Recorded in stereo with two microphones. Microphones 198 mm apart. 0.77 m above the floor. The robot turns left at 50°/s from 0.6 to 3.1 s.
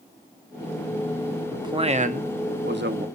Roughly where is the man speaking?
Ahead.